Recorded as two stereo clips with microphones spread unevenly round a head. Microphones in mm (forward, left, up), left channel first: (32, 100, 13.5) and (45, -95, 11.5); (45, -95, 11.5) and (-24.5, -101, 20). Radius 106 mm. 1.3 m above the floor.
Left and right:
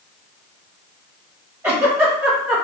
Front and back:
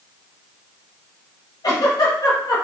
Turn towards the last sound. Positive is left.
turn(degrees=-5)